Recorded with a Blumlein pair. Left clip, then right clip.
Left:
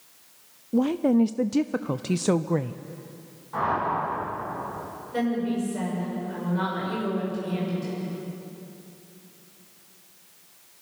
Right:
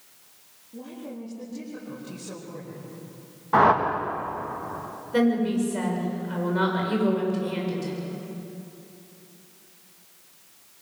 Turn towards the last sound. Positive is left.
turn(degrees=-70)